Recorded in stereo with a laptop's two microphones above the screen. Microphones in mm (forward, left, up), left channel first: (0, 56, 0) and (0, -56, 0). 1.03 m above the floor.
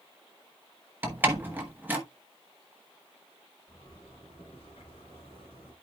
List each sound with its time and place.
1.0 s a door slam: 15° right (ahead or behind), 1.0 m
3.7 s a zipper: 50° left (ahead or behind), 4.5 m